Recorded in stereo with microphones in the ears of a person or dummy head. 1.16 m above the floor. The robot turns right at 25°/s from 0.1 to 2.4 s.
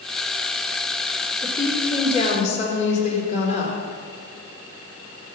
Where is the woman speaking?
15° left (ahead or behind), 3 m; by 3.8 s 40° left (ahead or behind), 3 m.